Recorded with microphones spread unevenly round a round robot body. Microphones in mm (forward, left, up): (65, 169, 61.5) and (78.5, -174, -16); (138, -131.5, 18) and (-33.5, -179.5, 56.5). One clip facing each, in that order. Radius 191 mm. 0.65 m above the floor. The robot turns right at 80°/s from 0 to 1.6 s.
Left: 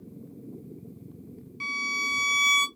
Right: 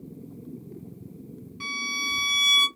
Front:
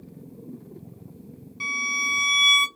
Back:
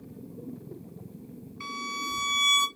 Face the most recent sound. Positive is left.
turn(degrees=20)